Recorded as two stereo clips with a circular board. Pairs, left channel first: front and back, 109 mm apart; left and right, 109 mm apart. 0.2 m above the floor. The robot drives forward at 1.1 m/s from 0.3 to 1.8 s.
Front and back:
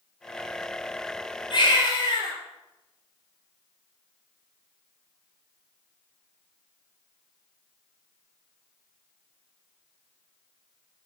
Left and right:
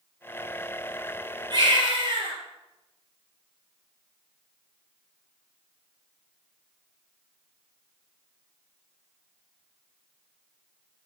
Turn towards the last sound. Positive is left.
turn(degrees=-45)